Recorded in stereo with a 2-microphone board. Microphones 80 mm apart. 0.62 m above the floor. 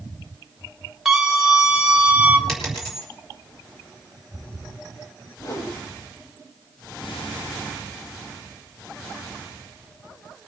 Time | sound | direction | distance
1.1 | a scream | 5° right (ahead or behind) | 2.5 m
2.5 | a dropped coin | 5° left (ahead or behind) | 4 m
5.4 | a whoosh | 50° left (ahead or behind) | 1.5 m